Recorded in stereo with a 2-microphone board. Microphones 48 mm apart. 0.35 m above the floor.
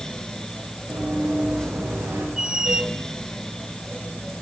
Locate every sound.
0.9 s running footsteps: 50° right (ahead or behind), 10 m; by 2.3 s 60° right (ahead or behind), 8 m
2.4 s a squeak: 15° right (ahead or behind), 0.5 m